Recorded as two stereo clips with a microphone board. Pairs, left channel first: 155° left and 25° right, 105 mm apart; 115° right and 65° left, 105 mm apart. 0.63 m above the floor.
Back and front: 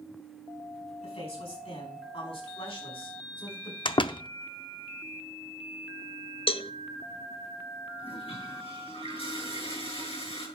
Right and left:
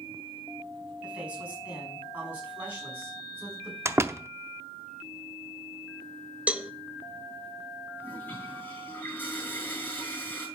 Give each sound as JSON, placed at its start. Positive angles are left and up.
{"t": 1.0, "sound": "a man speaking", "azimuth_deg": 145, "distance_m": 5.0}
{"t": 3.9, "sound": "a door slam", "azimuth_deg": 130, "distance_m": 0.6}
{"t": 6.5, "sound": "a cowbell", "azimuth_deg": 145, "distance_m": 0.7}
{"t": 8.0, "sound": "a toilet flushing", "azimuth_deg": 175, "distance_m": 7.5}